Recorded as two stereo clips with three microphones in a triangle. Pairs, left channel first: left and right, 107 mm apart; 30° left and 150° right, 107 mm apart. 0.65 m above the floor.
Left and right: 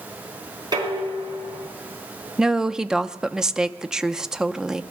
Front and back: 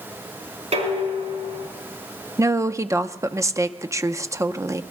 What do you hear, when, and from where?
0.7 s dishes clattering: 140° right, 3.5 m
2.4 s a woman speaking: 170° right, 0.5 m